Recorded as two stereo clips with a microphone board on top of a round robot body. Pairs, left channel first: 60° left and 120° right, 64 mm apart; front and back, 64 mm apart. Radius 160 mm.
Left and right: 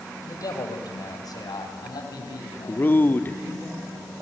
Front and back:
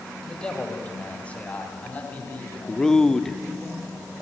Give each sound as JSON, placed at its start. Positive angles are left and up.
{"t": 0.2, "sound": "a man speaking", "azimuth_deg": 75, "distance_m": 3.5}
{"t": 2.7, "sound": "a man speaking", "azimuth_deg": 75, "distance_m": 1.4}